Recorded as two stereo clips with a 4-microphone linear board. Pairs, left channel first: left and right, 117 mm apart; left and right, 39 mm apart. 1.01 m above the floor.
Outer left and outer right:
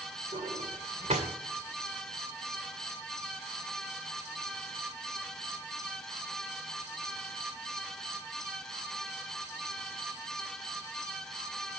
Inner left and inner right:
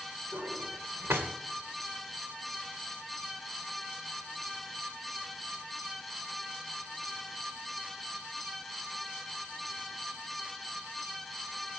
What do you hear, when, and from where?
0.3 s a drawer: 80° right, 2.5 m